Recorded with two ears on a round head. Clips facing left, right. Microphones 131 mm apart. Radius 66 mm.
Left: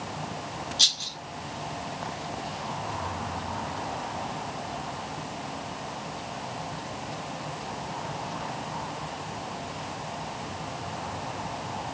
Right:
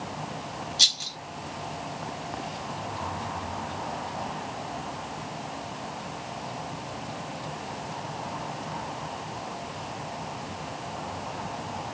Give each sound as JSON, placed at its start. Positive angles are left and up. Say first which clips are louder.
{"t": 0.8, "sound": "a rattle", "louder": "even", "side_deg": -10, "distance_m": 1.0}